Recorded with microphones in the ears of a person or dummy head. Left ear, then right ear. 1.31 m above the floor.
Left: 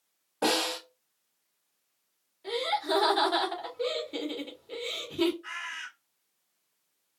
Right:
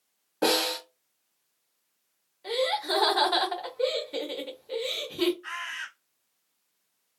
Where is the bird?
10° right (ahead or behind), 1.1 m.